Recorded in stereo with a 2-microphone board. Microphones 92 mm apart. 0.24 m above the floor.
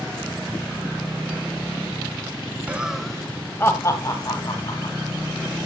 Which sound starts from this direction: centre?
Laughter, at 2.7 s.